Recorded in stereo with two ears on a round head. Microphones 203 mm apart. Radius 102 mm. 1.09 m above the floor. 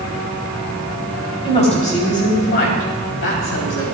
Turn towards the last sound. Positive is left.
turn(degrees=75)  # may be behind; listen again after turning